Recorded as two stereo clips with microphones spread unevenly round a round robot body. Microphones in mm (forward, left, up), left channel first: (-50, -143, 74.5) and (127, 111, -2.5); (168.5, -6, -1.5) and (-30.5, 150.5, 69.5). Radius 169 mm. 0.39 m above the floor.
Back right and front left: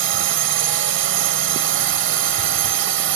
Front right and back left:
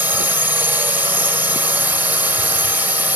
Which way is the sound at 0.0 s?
45° left.